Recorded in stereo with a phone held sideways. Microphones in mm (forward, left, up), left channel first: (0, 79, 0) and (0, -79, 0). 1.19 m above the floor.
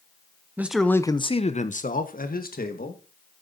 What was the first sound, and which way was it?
A man speaking, 15° right (ahead or behind).